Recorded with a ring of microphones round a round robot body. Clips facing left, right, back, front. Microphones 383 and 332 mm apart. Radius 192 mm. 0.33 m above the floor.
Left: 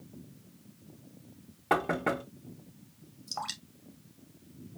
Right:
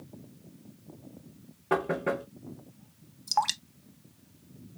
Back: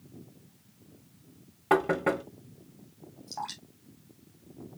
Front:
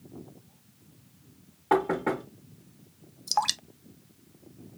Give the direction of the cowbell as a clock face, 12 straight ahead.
I don't hear a cowbell.